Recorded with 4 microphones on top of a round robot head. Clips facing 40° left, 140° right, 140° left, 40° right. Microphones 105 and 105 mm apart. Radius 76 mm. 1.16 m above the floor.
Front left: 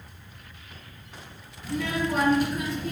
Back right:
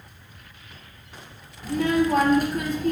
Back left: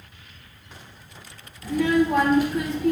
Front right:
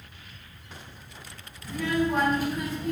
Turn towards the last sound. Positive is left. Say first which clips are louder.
# back right 7 dB, back left 6 dB
turn(degrees=170)